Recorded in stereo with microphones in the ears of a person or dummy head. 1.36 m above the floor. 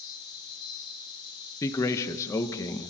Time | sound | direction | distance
0.0 | an insect | 30° left (ahead or behind) | 7.5 m
1.6 | a man speaking | 20° left (ahead or behind) | 1.5 m